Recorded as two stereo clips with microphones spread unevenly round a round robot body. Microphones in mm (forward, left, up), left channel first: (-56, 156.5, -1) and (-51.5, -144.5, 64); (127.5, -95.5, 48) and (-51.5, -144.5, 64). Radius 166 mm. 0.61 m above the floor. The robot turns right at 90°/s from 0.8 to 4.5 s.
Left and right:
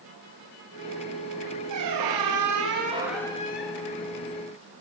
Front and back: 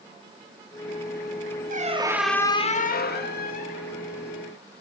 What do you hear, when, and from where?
1.7 s a squeak: 120° right, 0.9 m; by 3.9 s 75° left, 0.9 m